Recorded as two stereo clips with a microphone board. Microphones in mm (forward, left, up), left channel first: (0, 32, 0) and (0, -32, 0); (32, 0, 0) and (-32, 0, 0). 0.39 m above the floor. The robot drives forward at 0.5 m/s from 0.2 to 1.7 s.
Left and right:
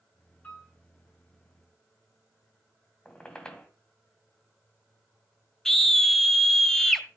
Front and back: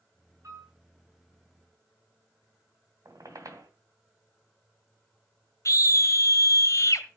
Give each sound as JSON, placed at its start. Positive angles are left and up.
{"t": 0.4, "sound": "a piano", "azimuth_deg": 150, "distance_m": 6.0}
{"t": 3.0, "sound": "a squeak", "azimuth_deg": 165, "distance_m": 2.0}
{"t": 5.7, "sound": "a scream", "azimuth_deg": 5, "distance_m": 1.7}